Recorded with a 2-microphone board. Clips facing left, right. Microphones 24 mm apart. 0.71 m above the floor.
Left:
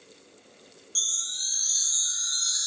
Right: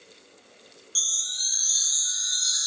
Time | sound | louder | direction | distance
0.9 | a chime | right 2 dB | 25° right (ahead or behind) | 0.7 m